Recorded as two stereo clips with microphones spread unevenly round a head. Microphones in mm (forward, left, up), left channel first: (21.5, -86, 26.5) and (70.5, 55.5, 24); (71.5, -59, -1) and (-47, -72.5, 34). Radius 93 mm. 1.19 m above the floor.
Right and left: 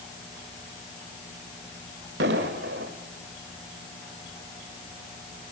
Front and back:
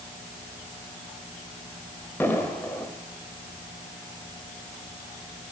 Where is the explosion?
95° left, 1.8 m.